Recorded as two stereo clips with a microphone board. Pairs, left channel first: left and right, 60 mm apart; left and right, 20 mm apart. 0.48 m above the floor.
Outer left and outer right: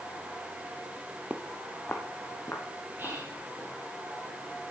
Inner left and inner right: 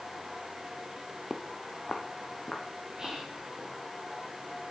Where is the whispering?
35° right (ahead or behind), 5.5 m.